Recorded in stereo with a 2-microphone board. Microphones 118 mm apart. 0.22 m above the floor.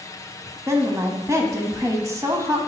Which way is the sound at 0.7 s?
25° right (ahead or behind).